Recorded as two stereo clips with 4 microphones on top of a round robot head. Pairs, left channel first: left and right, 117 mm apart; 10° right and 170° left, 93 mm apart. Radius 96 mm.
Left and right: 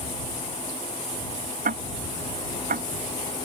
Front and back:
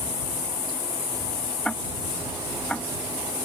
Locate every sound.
1.6 s ticking: 95° right